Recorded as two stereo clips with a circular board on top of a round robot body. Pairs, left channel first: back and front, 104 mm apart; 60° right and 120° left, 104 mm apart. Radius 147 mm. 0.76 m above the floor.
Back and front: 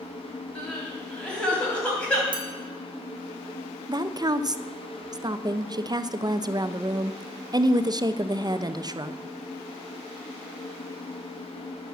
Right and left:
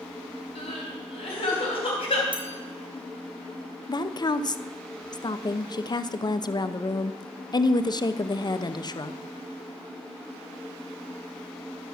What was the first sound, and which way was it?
Crying, 100° right.